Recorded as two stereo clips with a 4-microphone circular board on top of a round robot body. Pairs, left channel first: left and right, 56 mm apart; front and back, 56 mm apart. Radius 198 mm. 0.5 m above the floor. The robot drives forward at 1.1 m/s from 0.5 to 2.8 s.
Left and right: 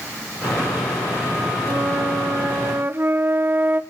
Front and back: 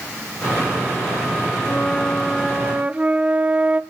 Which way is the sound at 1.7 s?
50° right.